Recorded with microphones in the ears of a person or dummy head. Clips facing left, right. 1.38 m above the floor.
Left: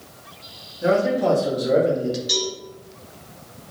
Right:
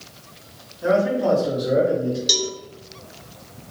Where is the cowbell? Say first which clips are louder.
Even; 50° right (ahead or behind), 1.0 m.